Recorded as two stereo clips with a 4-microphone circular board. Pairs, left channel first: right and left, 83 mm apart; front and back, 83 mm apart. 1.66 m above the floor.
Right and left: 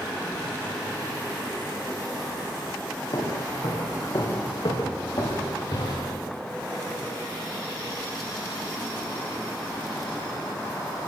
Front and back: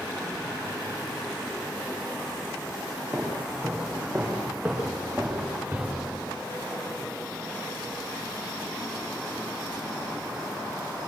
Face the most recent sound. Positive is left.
turn(degrees=-110)